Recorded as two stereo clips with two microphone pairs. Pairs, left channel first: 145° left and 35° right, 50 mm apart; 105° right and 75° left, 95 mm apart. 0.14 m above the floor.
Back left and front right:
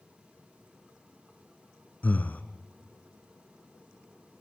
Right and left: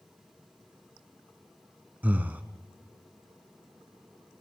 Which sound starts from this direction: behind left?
Breathing, at 2.0 s.